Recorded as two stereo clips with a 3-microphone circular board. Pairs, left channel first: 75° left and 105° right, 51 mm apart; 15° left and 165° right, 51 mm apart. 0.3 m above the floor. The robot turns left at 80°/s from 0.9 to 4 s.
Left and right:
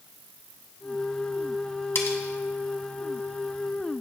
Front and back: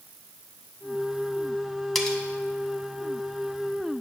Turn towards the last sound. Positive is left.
turn(degrees=-65)